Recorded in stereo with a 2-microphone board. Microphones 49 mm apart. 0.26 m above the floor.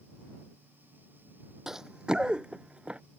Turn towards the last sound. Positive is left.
turn(degrees=-20)  # may be behind; listen again after turning